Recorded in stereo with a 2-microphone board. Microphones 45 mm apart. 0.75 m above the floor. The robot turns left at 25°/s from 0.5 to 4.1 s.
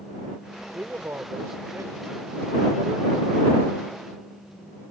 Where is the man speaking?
65° right; by 3.4 s 130° right.